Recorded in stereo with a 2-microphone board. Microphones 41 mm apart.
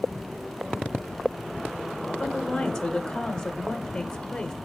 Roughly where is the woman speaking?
Centre.